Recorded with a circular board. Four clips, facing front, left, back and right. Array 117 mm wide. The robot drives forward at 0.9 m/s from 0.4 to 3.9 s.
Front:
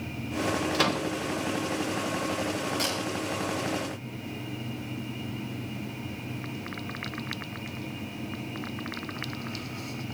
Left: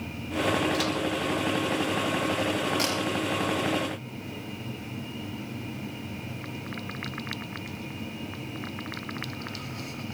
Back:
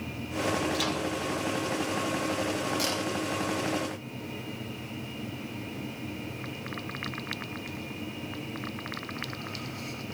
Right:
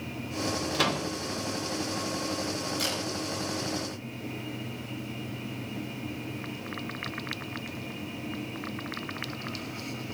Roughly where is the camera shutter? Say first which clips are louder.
Left 4 dB, even; left.